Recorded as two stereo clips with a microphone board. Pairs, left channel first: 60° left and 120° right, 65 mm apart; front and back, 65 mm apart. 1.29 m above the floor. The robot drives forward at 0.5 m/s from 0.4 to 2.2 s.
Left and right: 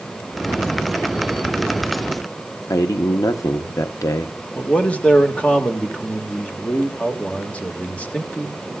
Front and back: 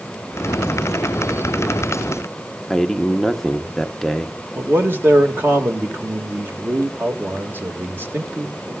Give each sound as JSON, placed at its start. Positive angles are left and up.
{"t": 2.7, "sound": "a man speaking", "azimuth_deg": 85, "distance_m": 0.8}
{"t": 4.5, "sound": "a man speaking", "azimuth_deg": 130, "distance_m": 1.8}